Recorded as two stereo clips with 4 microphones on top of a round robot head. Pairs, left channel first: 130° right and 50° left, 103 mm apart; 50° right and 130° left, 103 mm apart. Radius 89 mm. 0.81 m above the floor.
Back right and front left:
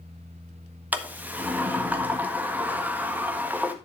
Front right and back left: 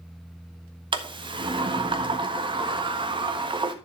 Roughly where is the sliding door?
Behind left.